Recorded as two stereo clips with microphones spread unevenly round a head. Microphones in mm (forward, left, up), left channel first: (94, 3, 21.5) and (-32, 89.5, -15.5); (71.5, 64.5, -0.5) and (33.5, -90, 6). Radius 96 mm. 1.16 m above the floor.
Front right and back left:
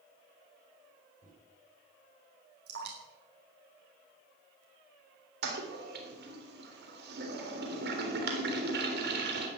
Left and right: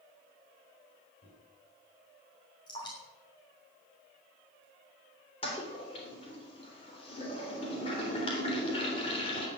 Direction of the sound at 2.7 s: 145° left.